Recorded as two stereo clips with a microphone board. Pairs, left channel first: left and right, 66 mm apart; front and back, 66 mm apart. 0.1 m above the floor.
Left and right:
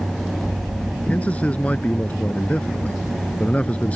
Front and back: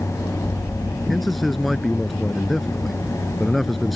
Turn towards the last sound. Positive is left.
turn(degrees=85)